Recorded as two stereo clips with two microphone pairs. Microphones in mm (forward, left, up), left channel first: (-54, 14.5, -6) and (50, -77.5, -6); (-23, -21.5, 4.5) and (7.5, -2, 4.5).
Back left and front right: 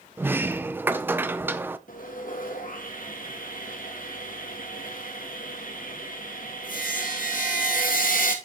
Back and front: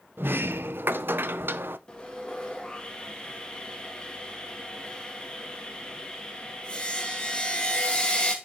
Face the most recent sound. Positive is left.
turn(degrees=145)